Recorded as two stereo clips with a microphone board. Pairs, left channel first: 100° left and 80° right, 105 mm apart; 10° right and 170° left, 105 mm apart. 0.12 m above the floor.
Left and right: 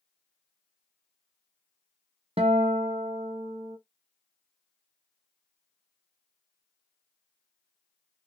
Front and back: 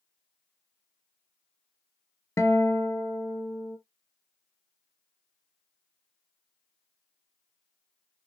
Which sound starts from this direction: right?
A guitar, at 2.4 s.